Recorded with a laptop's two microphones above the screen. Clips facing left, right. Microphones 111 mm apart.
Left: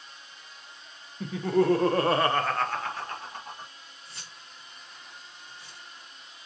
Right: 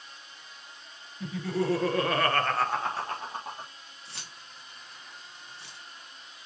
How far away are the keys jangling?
About 1.6 m.